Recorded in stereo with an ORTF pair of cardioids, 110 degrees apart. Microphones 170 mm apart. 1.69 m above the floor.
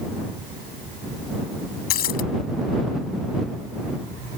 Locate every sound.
1.9 s breaking glass: 60° left